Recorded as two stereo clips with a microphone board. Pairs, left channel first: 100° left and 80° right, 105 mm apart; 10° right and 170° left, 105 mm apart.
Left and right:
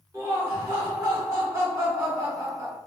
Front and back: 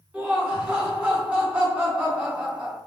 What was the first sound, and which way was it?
Laughter, 120° right.